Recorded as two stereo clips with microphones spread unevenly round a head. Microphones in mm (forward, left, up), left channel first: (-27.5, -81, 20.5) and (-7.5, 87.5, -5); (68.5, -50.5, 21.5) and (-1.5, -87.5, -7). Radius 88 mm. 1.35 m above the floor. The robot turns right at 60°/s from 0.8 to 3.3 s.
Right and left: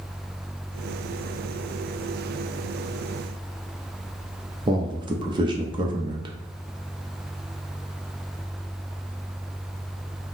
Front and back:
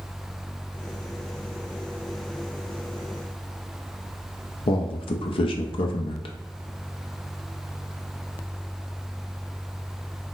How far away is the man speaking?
About 0.5 m.